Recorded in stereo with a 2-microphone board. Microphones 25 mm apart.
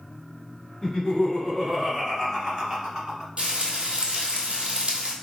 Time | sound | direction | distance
0.8 | laughter | 15° left (ahead or behind) | 1.6 m
3.4 | frying | 45° right (ahead or behind) | 0.8 m